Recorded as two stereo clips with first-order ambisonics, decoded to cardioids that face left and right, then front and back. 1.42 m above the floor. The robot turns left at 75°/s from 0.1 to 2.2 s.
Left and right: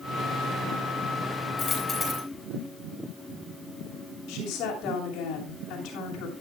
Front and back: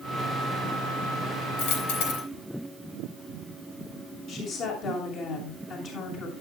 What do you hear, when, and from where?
1.6 s a dropped coin: 35° left, 6.5 m; by 2.2 s 10° right, 6.5 m
4.3 s a woman speaking: 50° left, 6.5 m